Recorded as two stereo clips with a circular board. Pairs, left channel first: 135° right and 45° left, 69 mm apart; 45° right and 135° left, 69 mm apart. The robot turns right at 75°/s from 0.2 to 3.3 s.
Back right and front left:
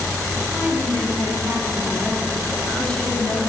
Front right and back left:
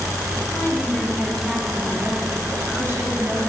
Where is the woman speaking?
25° right, 1.9 m; by 3.4 s 175° right, 1.9 m.